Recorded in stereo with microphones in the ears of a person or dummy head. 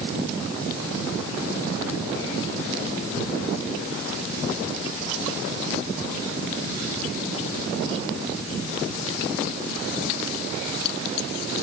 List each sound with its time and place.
Only background noise.